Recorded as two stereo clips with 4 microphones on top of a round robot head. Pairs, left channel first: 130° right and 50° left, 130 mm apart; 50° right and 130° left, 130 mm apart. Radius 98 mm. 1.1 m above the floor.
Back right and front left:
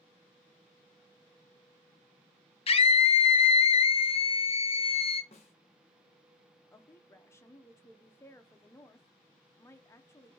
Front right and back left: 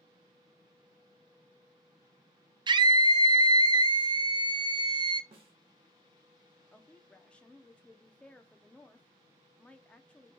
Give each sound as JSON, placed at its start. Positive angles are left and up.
{"t": 2.7, "sound": "a scream", "azimuth_deg": -175, "distance_m": 0.6}
{"t": 5.3, "sound": "a snare drum", "azimuth_deg": -175, "distance_m": 0.5}
{"t": 6.7, "sound": "a woman speaking", "azimuth_deg": -115, "distance_m": 0.5}